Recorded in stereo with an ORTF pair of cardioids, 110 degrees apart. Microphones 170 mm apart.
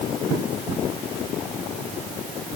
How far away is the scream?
I don't hear a scream.